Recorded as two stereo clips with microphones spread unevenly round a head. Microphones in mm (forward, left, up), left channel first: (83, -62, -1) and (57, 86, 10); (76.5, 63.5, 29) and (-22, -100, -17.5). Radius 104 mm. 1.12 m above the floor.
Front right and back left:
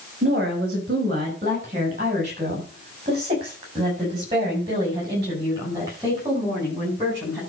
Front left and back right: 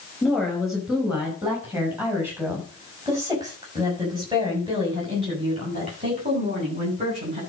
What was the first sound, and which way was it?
A woman speaking, 145° left.